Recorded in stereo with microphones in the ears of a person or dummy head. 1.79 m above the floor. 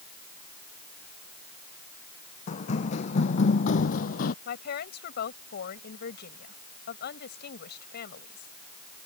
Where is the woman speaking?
65° left (ahead or behind).